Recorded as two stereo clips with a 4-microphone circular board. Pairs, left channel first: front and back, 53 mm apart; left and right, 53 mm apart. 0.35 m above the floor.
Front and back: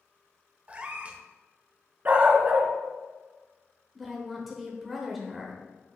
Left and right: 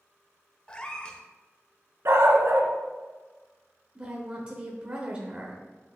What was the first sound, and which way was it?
A cat meowing, 145° left.